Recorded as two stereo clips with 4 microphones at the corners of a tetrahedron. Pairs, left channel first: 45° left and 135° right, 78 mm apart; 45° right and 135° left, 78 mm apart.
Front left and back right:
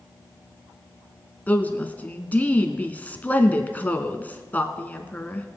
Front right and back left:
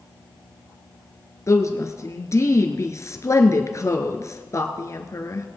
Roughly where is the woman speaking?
Ahead.